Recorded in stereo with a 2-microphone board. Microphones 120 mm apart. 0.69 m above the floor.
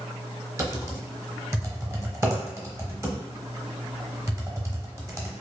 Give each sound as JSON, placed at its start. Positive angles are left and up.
{"t": 0.6, "sound": "typing on a keyboard", "side_deg": -25, "distance_m": 0.8}